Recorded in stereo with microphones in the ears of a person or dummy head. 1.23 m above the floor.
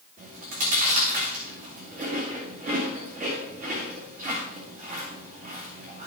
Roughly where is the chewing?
Right.